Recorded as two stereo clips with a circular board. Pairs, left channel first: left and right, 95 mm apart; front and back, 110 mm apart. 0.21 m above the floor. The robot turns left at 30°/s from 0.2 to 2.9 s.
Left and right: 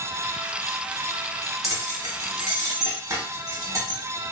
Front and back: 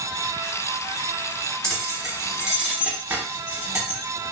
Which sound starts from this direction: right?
Keys jangling, at 1.6 s.